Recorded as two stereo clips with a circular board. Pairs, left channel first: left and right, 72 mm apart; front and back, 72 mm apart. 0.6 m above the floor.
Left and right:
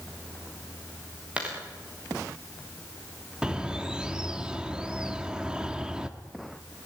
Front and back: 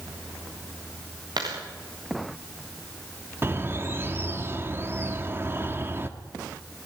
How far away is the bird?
About 1.2 m.